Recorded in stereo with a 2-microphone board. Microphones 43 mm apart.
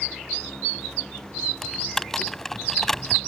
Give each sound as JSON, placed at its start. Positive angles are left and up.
{"t": 1.6, "sound": "typing on a keyboard", "side_deg": 10}